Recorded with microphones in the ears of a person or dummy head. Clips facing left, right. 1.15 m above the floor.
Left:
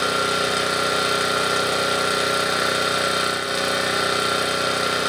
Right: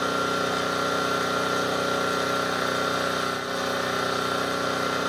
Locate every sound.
0.0 s an engine running: 35° left (ahead or behind), 1.2 m